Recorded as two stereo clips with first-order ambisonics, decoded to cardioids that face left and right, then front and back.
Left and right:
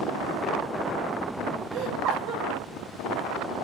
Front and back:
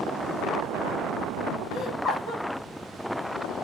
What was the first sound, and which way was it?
Laughter, 60° right.